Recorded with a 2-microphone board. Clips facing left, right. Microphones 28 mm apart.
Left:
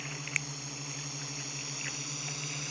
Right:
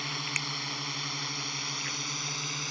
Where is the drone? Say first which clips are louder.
Right 4 dB; 65° right (ahead or behind); by 2.7 s 35° right (ahead or behind).